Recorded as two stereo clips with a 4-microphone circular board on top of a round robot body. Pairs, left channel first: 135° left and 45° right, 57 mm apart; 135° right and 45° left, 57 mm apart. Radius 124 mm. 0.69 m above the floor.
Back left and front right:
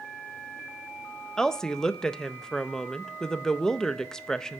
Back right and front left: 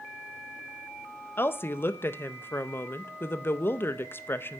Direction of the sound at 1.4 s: 150° right.